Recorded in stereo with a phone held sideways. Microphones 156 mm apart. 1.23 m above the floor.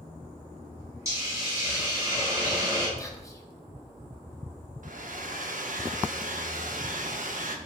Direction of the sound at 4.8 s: 65° right (ahead or behind).